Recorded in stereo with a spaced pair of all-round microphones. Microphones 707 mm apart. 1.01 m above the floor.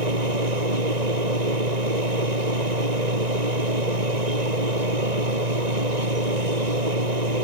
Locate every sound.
0.0 s a machine running: 70° right (ahead or behind)